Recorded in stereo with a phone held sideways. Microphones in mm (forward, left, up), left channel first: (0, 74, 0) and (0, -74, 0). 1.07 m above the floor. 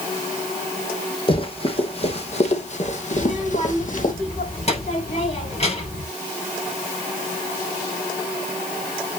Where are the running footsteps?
35° left (ahead or behind), 3.5 m; by 4.1 s 60° left (ahead or behind), 3 m.